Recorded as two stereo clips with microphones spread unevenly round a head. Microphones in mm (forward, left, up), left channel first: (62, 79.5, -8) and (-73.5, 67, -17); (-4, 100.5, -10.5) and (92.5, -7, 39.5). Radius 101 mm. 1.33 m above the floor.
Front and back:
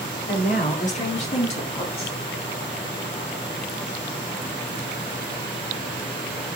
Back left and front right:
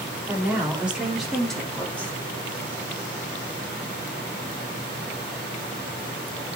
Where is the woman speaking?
30° left, 4.5 m; by 2.2 s 55° left, 3.5 m.